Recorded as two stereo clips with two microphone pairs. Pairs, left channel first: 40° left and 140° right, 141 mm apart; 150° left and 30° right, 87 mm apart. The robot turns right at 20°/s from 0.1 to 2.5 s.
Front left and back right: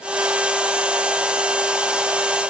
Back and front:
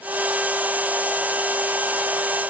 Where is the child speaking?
I don't hear a child speaking.